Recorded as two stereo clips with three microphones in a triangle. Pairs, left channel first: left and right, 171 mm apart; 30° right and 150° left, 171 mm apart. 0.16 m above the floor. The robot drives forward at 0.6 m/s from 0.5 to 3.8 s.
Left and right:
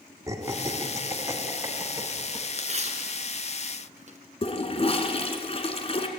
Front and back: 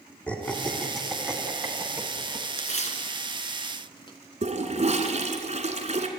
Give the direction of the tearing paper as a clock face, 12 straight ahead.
2 o'clock.